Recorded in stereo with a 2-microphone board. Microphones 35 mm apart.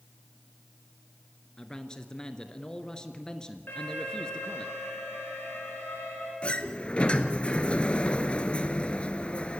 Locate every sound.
1.6 s a man speaking: 20° left (ahead or behind), 1.5 m
3.7 s an alarm: 80° left, 7.5 m
6.4 s a sliding door: 35° left (ahead or behind), 1.2 m